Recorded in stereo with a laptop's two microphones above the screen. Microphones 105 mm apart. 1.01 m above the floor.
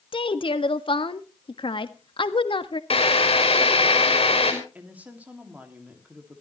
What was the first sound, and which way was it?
A woman speaking, 55° left (ahead or behind).